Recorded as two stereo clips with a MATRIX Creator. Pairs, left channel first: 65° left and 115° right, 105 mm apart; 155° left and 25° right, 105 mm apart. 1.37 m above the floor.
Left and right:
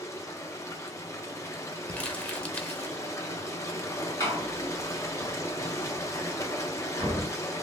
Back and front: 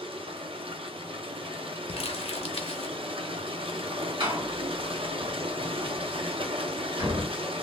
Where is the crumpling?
145° left, 0.7 m.